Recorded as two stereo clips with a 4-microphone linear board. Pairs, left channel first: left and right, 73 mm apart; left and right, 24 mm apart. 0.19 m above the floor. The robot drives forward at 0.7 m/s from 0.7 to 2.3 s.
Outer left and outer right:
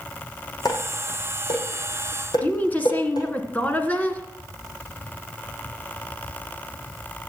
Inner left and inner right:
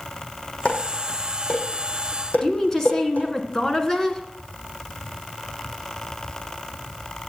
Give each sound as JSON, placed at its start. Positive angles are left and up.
{"t": 0.7, "sound": "dishes clattering", "side_deg": 60, "distance_m": 6.0}
{"t": 2.4, "sound": "a woman speaking", "side_deg": 20, "distance_m": 1.9}